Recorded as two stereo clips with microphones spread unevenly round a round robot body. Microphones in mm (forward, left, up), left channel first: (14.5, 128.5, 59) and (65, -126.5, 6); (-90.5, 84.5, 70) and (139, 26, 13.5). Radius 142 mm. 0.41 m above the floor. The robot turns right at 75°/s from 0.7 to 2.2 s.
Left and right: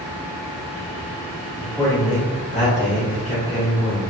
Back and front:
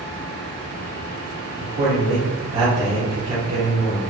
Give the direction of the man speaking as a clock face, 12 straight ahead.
12 o'clock.